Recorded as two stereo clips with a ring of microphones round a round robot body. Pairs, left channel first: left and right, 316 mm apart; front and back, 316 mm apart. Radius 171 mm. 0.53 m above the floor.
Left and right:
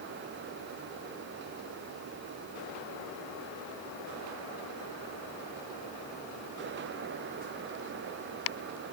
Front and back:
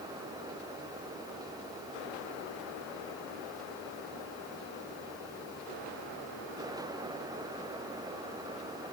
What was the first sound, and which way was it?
Only background noise.